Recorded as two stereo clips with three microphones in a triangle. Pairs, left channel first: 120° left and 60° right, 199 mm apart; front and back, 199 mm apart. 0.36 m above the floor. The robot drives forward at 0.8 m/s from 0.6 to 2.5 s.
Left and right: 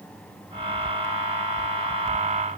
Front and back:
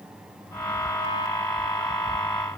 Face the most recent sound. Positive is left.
No sound to turn to.